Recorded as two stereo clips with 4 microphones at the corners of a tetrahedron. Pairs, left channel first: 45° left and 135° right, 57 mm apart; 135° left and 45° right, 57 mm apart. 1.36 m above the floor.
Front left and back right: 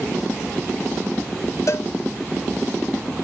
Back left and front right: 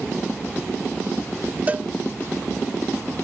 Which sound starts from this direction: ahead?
A cowbell, at 1.7 s.